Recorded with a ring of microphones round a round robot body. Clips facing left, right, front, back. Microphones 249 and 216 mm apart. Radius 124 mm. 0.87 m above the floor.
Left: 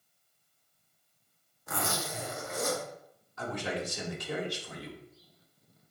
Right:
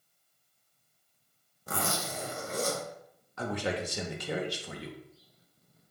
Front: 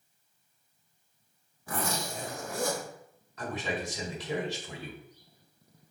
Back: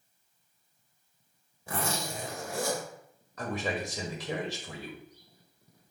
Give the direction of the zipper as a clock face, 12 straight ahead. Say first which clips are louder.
Right 1 dB, even; 4 o'clock.